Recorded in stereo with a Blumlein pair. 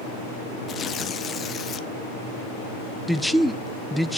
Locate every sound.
0.7 s tearing paper: 25° left, 0.7 m
3.1 s a man speaking: straight ahead, 0.6 m